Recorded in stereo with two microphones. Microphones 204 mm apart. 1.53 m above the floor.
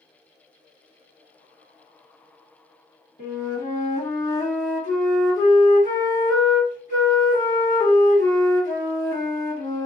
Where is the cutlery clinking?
No cutlery clinking in this recording.